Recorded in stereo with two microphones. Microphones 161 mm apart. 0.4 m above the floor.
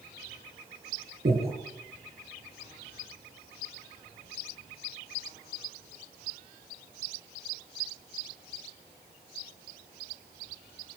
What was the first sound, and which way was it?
Breathing, 65° right (ahead or behind).